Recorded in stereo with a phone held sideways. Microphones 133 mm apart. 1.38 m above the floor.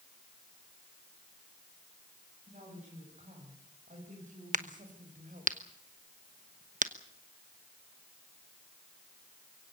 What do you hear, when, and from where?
2.5 s a woman speaking: 70° right (ahead or behind), 9 m; by 5.5 s 90° right, 6 m
4.5 s a crack: 75° right (ahead or behind), 1.1 m